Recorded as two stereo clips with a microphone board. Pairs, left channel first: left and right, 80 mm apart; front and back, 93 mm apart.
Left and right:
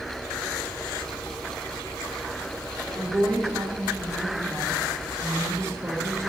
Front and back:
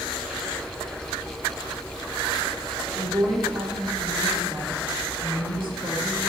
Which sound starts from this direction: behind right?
A woman speaking, at 3.0 s.